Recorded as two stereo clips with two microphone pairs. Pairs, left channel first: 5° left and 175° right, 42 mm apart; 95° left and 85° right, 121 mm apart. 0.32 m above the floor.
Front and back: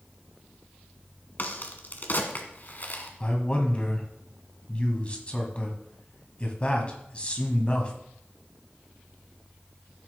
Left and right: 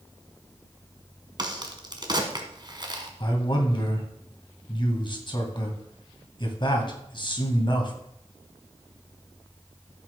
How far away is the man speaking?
About 2 m.